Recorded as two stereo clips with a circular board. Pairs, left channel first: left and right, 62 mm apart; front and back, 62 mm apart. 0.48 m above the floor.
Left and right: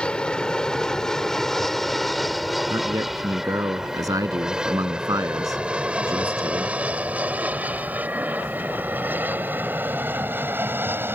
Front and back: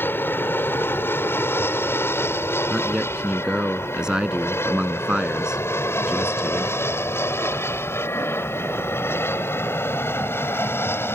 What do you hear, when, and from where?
0.0 s an aircraft: 25° left; by 11.2 s 45° right
2.7 s a man speaking: 100° right